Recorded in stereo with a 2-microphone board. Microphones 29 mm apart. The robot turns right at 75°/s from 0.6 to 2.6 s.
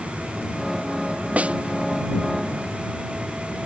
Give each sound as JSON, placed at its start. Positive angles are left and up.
{"t": 1.4, "sound": "a snare drum", "side_deg": -60}